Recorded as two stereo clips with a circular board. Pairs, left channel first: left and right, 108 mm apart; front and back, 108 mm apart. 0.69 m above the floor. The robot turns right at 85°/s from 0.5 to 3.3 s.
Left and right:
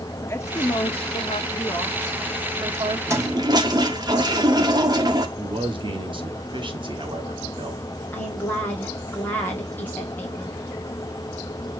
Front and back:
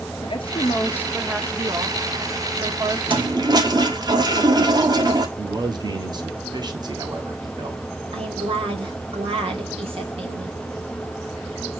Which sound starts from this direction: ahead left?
A woman speaking, at 0.2 s.